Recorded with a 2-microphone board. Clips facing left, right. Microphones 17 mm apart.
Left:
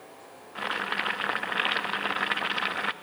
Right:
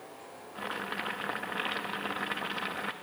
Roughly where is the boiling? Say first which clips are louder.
Left 6 dB; left.